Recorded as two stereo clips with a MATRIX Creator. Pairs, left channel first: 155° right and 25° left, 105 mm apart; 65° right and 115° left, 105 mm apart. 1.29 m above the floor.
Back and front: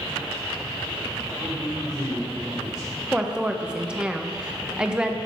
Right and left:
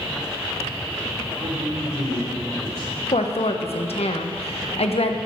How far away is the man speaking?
About 5 m.